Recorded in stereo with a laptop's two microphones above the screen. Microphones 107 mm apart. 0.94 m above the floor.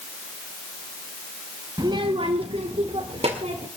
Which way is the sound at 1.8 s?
40° right (ahead or behind).